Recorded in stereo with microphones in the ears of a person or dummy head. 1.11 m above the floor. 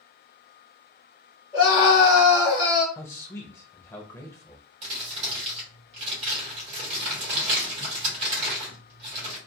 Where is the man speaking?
10° left (ahead or behind), 0.5 m.